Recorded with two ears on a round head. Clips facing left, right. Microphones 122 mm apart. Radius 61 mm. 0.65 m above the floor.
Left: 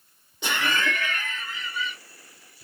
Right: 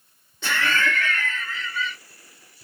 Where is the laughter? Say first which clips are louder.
Right 2 dB; 15° left (ahead or behind), 0.5 m.